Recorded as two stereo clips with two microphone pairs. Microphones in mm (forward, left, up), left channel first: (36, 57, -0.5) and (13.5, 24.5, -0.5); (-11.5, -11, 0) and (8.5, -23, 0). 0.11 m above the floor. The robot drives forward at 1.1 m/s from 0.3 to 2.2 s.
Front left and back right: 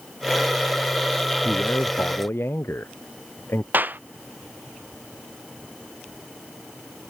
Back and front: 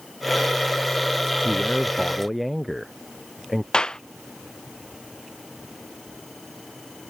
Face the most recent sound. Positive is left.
turn(degrees=-160)